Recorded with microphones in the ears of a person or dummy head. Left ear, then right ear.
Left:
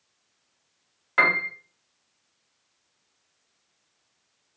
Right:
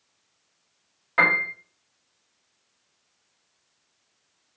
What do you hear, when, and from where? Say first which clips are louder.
1.2 s a piano: right 1 dB; 10° left (ahead or behind), 0.9 m